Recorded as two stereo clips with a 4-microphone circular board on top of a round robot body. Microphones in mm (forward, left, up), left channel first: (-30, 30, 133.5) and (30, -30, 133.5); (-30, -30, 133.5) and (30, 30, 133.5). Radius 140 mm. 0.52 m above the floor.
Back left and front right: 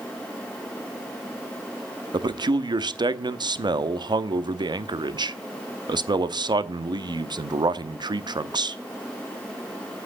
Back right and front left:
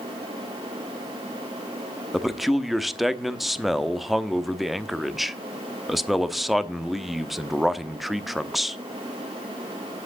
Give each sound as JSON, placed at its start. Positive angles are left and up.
{"t": 2.1, "sound": "a man speaking", "azimuth_deg": -45, "distance_m": 1.1}